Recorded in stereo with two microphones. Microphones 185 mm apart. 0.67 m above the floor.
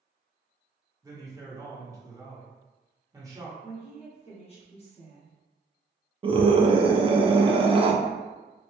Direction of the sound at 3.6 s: 35° left (ahead or behind).